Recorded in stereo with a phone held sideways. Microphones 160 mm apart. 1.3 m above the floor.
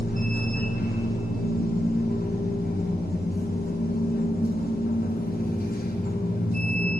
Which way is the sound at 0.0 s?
70° left (ahead or behind).